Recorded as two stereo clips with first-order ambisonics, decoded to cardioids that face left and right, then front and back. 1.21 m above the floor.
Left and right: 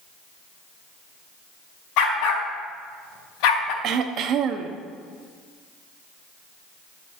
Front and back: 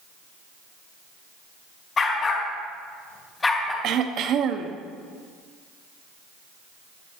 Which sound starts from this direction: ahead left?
A dog barking, at 2.0 s.